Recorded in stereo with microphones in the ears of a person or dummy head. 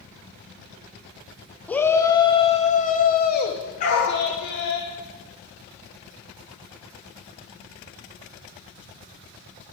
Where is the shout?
10° left (ahead or behind), 1.6 m; by 4.8 s 70° left (ahead or behind), 3 m.